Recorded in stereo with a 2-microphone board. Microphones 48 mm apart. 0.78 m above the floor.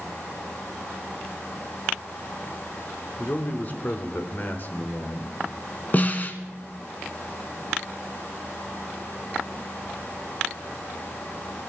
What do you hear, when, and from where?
3.2 s a man speaking: 40° left (ahead or behind), 1.8 m; by 5.4 s 50° left (ahead or behind), 3 m
5.9 s a snare drum: 35° left (ahead or behind), 1.4 m